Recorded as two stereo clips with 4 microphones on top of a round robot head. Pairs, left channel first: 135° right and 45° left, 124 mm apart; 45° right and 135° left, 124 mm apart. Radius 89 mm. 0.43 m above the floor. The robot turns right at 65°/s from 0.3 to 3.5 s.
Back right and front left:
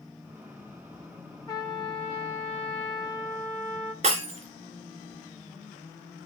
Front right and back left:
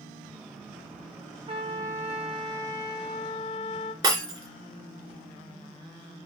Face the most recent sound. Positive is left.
turn(degrees=75)